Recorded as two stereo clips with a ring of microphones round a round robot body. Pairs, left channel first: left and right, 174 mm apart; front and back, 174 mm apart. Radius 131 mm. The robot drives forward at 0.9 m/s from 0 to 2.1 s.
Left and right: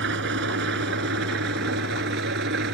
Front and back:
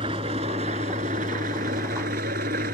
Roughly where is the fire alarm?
No fire alarm in this recording.